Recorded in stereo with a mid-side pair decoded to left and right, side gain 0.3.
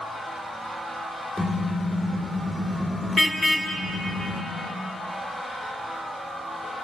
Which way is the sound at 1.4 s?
15° left.